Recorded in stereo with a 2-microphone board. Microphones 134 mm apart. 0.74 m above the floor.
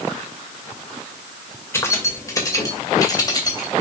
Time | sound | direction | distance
1.7 | keys jangling | 20° left (ahead or behind) | 2.0 m